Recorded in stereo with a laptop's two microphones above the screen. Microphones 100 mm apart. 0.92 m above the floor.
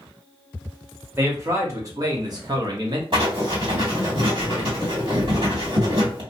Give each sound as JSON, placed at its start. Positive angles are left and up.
{"t": 1.2, "sound": "a man speaking", "side_deg": -25, "distance_m": 1.5}
{"t": 3.1, "sound": "writing", "side_deg": -60, "distance_m": 1.6}